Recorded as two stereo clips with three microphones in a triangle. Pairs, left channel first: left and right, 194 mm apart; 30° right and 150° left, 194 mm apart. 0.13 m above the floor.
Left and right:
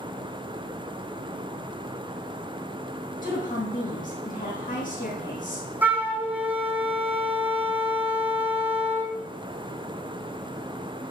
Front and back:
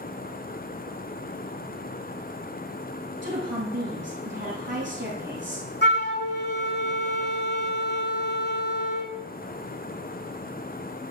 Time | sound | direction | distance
3.2 | a woman speaking | 135° left | 5.5 m
5.8 | a flute | 10° right | 1.1 m